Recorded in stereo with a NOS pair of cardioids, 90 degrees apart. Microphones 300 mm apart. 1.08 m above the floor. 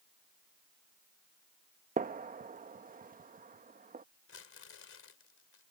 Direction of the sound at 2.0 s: 30° right.